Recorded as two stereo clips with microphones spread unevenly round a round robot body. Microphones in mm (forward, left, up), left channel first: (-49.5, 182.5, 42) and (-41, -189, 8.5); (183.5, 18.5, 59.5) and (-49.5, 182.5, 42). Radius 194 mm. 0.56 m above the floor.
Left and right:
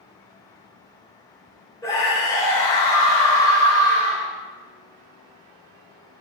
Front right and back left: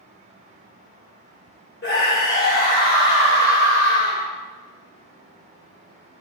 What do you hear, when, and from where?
1.8 s a scream: 5° left, 2.5 m